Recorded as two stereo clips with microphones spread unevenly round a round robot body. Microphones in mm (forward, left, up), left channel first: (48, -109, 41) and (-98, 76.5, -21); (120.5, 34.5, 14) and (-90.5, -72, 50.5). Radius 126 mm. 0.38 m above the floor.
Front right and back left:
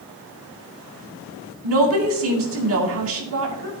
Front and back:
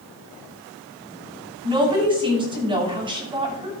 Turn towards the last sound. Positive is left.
turn(degrees=135)